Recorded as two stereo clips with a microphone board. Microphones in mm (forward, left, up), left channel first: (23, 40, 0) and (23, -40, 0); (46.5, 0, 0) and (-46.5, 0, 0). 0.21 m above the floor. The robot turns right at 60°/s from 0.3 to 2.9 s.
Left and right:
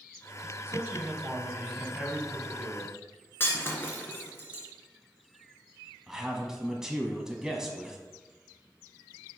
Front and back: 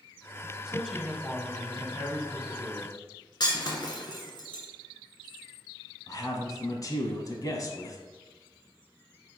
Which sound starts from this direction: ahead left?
Breaking glass, at 3.4 s.